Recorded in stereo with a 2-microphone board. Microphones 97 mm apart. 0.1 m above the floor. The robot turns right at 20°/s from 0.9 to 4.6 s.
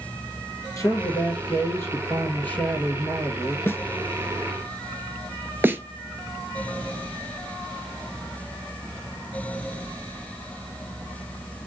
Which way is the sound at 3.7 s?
25° left (ahead or behind).